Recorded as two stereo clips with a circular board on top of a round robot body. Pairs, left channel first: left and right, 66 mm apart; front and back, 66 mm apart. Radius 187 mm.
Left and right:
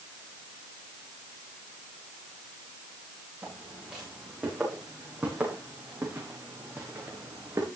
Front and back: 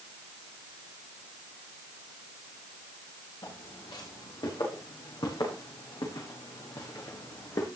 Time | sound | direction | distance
3.4 | footsteps | 15° right | 9.5 m